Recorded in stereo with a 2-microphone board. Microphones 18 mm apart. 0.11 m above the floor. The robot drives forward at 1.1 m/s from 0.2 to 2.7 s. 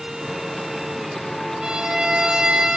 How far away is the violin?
About 3.5 m.